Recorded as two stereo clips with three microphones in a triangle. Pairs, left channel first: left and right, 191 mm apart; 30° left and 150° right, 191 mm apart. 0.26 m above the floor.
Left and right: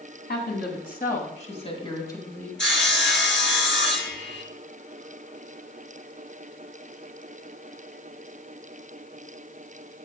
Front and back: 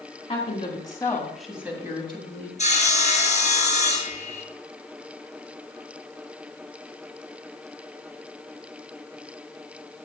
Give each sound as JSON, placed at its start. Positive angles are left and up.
{"t": 0.3, "sound": "a woman speaking", "azimuth_deg": 80, "distance_m": 2.5}
{"t": 2.6, "sound": "sawing", "azimuth_deg": 80, "distance_m": 1.5}